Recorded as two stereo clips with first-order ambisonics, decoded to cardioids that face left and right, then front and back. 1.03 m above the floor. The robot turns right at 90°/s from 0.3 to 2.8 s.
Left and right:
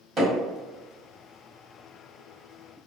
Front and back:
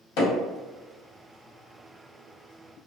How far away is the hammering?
About 1.5 m.